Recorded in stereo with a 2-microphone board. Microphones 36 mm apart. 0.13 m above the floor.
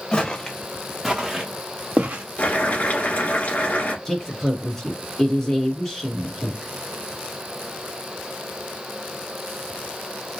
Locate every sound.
0.1 s footsteps: 25° left (ahead or behind), 1.3 m; by 2.2 s 55° right (ahead or behind), 1.1 m
2.4 s boiling: 50° left (ahead or behind), 1.4 m
4.0 s a man speaking: 15° left (ahead or behind), 1.8 m